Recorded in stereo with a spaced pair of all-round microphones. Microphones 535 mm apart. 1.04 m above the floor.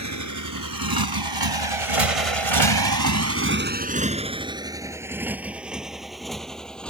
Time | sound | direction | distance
0.0 | a motorcycle | 30° right (ahead or behind) | ?